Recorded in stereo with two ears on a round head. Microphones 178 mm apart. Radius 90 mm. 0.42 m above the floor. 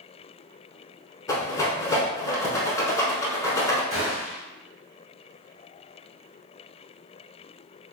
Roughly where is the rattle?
Centre.